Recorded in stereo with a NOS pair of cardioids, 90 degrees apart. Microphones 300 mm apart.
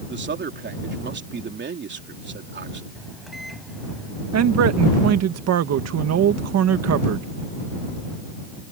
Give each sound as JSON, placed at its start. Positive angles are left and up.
{"t": 0.1, "sound": "a man speaking", "azimuth_deg": -40}
{"t": 3.0, "sound": "a microwave", "azimuth_deg": 0}
{"t": 4.3, "sound": "a man speaking", "azimuth_deg": -60}